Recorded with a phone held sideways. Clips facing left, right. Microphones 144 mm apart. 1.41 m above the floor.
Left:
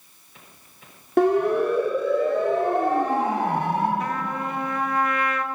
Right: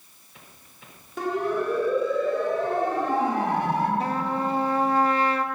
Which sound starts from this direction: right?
A trumpet, at 4.0 s.